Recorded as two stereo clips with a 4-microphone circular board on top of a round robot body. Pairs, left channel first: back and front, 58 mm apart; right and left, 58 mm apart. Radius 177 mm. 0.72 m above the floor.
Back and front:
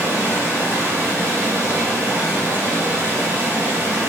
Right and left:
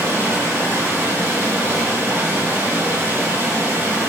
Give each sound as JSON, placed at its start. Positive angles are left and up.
{"t": 0.0, "sound": "running water", "azimuth_deg": 50, "distance_m": 3.5}